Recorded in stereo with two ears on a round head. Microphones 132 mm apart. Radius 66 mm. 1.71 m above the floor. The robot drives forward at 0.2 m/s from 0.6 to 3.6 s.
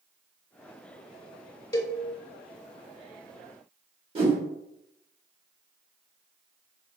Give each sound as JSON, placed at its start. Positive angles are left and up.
{"t": 1.7, "sound": "a cowbell", "side_deg": 25, "distance_m": 0.7}
{"t": 4.2, "sound": "a whoosh", "side_deg": -40, "distance_m": 1.2}